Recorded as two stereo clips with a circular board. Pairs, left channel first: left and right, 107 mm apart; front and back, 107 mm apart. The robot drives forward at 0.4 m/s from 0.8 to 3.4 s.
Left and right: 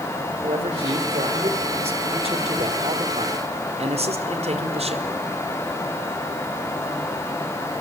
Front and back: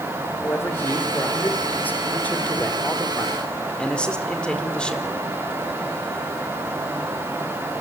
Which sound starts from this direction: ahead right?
A man speaking, at 0.4 s.